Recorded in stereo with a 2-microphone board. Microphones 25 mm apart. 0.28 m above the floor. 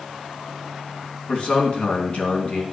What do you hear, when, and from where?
1.3 s a man speaking: 50° left (ahead or behind), 3 m